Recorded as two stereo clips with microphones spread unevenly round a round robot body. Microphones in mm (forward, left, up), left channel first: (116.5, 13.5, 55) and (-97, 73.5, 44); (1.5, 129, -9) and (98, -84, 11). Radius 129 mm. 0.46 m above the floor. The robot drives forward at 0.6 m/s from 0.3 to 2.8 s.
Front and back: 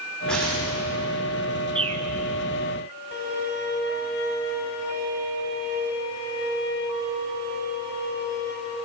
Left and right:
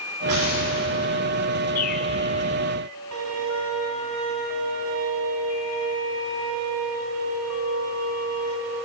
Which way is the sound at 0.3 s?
105° right.